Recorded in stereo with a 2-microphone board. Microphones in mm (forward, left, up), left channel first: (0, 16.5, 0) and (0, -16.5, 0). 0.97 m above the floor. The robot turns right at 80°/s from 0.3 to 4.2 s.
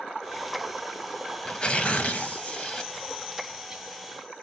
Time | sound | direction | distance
1.4 | tearing paper | 30° left | 1.0 m